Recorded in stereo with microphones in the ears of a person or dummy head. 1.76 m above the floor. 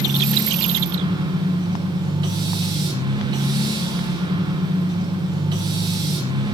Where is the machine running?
20° right (ahead or behind), 1.0 m.